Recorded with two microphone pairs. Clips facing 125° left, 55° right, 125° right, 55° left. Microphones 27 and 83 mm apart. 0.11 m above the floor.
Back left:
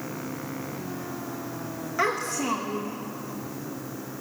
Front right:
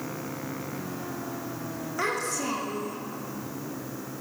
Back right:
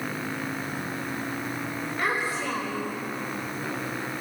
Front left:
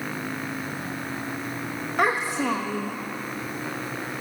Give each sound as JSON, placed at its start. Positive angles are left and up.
{"t": 2.0, "sound": "a child speaking", "azimuth_deg": 55, "distance_m": 6.0}